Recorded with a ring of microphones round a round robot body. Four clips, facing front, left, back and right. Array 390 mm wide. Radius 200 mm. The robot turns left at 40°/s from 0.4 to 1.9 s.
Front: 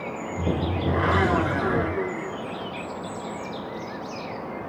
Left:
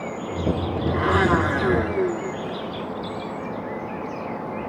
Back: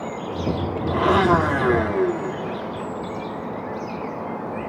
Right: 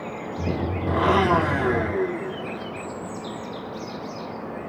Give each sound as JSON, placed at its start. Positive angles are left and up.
{"t": 0.9, "sound": "a blender", "azimuth_deg": -140, "distance_m": 2.0}